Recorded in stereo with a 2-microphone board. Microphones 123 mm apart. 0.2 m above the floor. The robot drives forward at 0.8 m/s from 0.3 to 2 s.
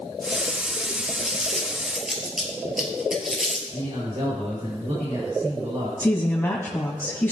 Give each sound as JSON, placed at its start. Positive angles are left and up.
{"t": 1.2, "sound": "crumpling", "side_deg": -5, "distance_m": 3.0}
{"t": 3.7, "sound": "a man speaking", "side_deg": -60, "distance_m": 4.5}
{"t": 6.0, "sound": "a woman speaking", "side_deg": 20, "distance_m": 1.3}